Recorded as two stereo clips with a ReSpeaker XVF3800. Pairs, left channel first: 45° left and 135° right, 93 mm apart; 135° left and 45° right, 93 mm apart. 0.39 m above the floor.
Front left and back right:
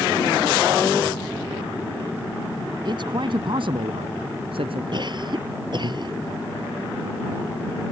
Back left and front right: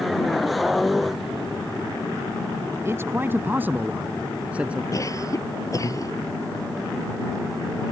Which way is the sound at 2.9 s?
105° right.